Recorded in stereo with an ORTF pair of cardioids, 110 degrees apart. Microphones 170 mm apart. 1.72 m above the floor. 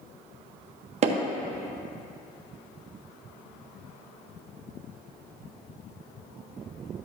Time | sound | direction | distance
1.0 | hammering | 40° right | 1.3 m